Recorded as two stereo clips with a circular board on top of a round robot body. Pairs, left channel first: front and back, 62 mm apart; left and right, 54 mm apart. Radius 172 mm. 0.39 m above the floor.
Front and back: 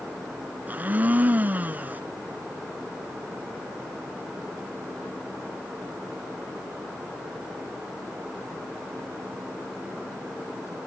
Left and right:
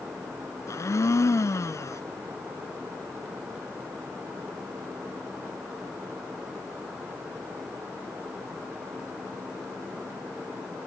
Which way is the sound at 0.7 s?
115° left.